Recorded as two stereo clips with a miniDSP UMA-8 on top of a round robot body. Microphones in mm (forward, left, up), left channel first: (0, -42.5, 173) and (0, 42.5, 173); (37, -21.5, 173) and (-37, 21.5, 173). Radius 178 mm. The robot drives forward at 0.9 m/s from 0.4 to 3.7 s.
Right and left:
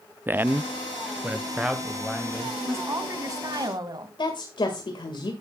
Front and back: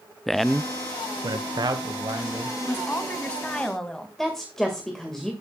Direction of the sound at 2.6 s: 35° left.